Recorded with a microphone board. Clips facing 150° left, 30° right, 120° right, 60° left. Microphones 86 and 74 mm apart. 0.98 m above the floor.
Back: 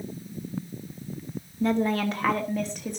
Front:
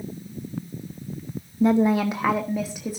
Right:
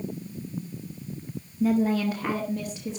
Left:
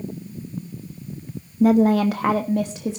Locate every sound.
1.6 s a woman speaking: 40° left, 0.7 m; by 3.0 s 55° left, 1.5 m